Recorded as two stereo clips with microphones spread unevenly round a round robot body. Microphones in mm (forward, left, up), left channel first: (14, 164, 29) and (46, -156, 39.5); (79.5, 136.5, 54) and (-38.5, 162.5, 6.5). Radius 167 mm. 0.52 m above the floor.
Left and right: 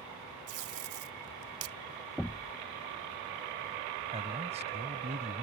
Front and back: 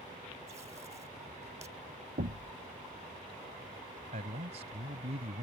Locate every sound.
0.5 s tape being pulled: 120° right
2.2 s knocking: 175° right
4.1 s a man speaking: 155° right